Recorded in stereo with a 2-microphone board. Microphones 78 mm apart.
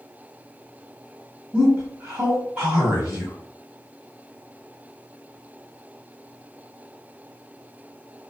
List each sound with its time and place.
1.5 s a man speaking: 15° right (ahead or behind), 1.2 m